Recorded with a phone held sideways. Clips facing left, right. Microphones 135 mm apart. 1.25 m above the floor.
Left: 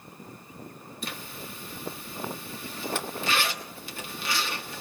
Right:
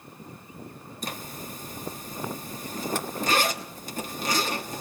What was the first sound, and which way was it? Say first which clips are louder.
A zipper: right 3 dB; 40° right (ahead or behind).